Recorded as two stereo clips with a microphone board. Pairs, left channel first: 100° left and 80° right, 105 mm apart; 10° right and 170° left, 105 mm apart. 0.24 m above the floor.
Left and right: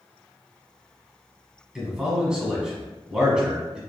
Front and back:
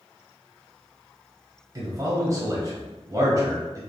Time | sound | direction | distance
1.8 | a man speaking | 155° right | 1.3 m